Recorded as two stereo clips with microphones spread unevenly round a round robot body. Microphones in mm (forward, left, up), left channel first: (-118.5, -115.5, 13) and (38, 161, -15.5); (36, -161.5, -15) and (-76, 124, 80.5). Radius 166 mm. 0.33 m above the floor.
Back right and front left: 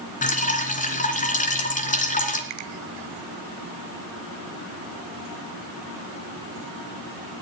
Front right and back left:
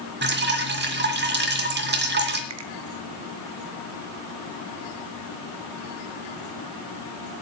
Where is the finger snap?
65° left, 1.6 m.